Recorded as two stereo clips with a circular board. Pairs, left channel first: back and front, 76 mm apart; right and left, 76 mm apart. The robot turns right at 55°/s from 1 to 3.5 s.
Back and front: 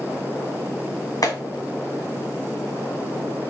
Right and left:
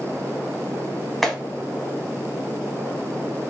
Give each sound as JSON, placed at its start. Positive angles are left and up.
{"t": 1.2, "sound": "a clap", "azimuth_deg": 175, "distance_m": 1.2}